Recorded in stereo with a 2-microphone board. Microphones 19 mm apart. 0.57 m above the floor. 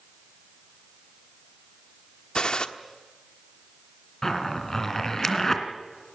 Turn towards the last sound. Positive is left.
turn(degrees=25)  # may be behind; listen again after turning